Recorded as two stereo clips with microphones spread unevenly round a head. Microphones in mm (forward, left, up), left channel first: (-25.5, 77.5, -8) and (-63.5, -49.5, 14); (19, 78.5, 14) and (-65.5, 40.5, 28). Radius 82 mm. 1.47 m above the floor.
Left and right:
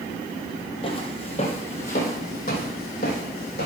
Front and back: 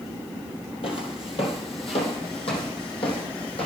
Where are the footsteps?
20° left, 2 m; by 3.7 s 45° left, 3.5 m.